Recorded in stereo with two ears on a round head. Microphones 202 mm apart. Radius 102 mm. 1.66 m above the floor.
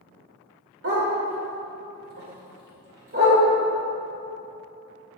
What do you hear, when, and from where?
0.8 s a dog barking: 55° right (ahead or behind), 2.5 m; by 3.4 s 50° right (ahead or behind), 3 m